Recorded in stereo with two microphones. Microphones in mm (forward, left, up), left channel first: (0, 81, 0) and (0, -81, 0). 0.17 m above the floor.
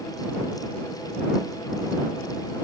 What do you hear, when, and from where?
Only background noise.